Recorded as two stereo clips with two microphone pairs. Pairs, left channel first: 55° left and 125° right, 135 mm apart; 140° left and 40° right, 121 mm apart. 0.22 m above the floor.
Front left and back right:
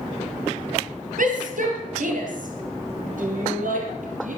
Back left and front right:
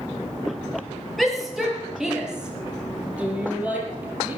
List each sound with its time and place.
1.2 s a shout: 130° right, 4.5 m; by 4.4 s 115° right, 5.5 m